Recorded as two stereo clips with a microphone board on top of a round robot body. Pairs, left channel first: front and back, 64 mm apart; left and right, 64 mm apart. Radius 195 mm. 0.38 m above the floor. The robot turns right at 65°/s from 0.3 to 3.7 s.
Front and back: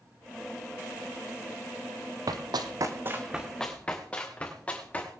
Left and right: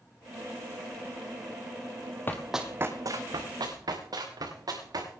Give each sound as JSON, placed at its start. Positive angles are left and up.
{"t": 2.3, "sound": "running footsteps", "azimuth_deg": 150, "distance_m": 0.7}